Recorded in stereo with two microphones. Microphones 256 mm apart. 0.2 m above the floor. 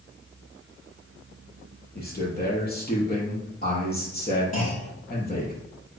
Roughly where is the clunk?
Left.